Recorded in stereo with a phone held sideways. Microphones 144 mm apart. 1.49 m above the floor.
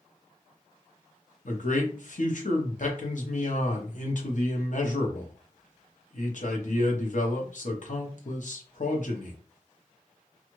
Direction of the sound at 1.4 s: 60° left (ahead or behind).